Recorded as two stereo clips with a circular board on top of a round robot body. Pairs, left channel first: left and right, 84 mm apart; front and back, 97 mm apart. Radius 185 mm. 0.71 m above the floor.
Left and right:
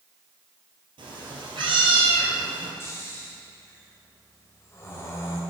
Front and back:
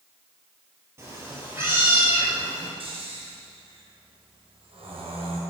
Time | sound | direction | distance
1.0 | a cat meowing | 115° right | 3 m
2.8 | snoring | 150° left | 2.5 m